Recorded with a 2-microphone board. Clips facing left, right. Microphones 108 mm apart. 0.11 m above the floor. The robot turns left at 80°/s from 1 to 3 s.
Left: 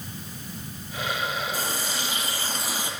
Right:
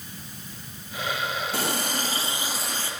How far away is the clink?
I don't hear a clink.